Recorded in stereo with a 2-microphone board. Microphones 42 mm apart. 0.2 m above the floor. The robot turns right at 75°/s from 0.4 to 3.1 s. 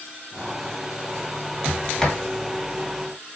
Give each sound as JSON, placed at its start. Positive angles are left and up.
{"t": 1.6, "sound": "a sliding door", "side_deg": 45, "distance_m": 1.2}